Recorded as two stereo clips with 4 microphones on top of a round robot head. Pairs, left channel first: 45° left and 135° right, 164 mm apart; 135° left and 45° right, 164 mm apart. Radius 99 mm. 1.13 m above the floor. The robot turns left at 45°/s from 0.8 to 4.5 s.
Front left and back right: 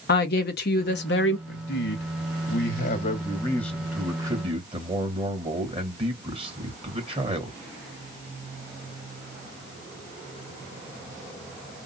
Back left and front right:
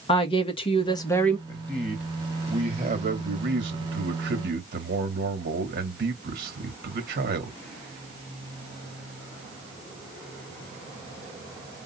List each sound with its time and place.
0.1 s a woman speaking: 75° left, 1.2 m; by 1.4 s 50° left, 1.2 m
1.5 s a man speaking: 60° left, 2.5 m; by 7.6 s 75° right, 2.5 m